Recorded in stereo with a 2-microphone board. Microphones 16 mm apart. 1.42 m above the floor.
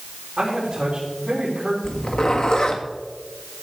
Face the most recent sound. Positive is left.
turn(degrees=55)  # may be behind; listen again after turning